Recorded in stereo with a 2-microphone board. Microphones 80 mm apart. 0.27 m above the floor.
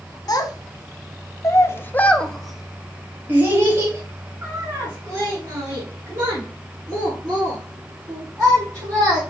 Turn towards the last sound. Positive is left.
turn(degrees=-40)  # may be behind; listen again after turning